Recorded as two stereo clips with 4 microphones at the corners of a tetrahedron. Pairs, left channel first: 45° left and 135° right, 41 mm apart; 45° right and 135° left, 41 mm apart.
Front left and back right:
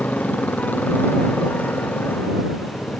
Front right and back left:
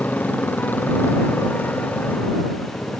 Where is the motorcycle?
5° right; by 3.0 s straight ahead.